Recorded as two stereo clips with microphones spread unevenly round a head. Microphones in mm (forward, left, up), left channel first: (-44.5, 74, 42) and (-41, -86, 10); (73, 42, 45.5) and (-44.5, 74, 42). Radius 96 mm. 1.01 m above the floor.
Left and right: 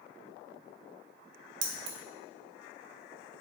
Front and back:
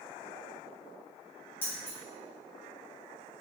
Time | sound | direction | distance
1.6 | keys jangling | 95° right | 0.5 m